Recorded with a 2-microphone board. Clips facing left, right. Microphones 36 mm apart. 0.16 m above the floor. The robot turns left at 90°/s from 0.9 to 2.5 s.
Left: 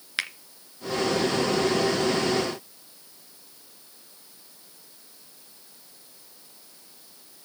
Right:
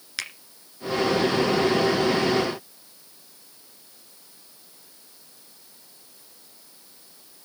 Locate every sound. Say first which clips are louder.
0.2 s a finger snap: left 4 dB; 25° left (ahead or behind), 1.7 m